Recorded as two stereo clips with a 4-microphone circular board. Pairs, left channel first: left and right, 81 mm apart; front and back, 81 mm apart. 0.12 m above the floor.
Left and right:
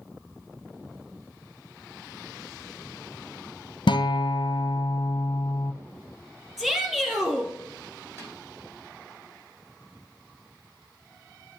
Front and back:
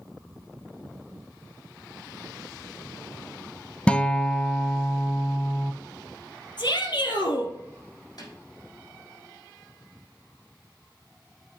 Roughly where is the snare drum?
Ahead right.